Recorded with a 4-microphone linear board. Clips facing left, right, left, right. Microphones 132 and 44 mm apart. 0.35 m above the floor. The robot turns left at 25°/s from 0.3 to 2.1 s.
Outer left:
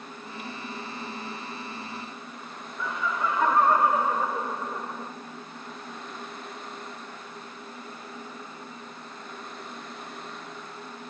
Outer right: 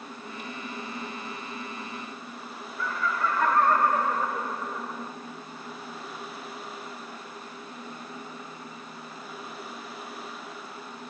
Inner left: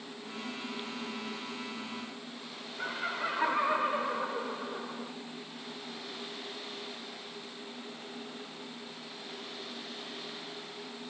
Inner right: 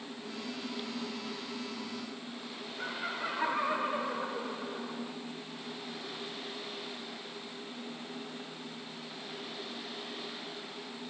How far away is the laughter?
About 0.9 m.